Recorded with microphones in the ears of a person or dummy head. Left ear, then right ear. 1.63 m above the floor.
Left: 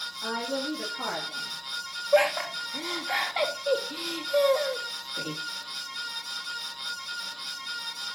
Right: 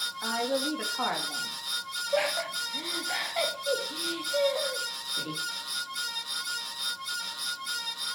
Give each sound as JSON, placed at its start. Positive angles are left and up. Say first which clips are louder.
{"t": 0.2, "sound": "a woman speaking", "louder": "right 1 dB", "side_deg": -45, "distance_m": 3.5}
{"t": 2.1, "sound": "laughter", "louder": "left 6 dB", "side_deg": 30, "distance_m": 2.5}